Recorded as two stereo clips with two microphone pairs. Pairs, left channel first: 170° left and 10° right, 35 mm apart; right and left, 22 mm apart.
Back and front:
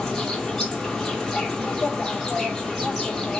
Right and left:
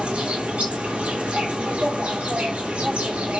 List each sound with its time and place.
0.0 s an insect: 105° left, 1.0 m